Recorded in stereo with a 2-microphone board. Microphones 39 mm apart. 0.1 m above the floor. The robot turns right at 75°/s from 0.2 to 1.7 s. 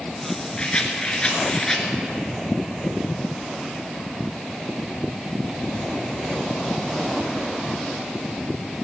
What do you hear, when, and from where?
0.6 s a rattle: 25° left (ahead or behind), 1.6 m; by 1.9 s 15° left (ahead or behind), 1.6 m